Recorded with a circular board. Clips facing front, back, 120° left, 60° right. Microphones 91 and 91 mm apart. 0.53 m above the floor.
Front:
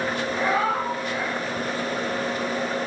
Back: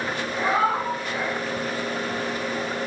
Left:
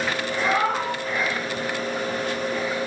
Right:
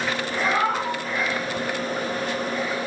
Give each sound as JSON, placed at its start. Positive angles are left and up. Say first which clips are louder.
{"t": 0.4, "sound": "a cat meowing", "louder": "back 2 dB, even", "azimuth_deg": -135, "distance_m": 0.6}